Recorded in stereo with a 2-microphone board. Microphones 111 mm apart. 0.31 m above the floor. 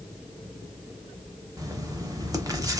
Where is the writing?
30° right (ahead or behind), 0.6 m.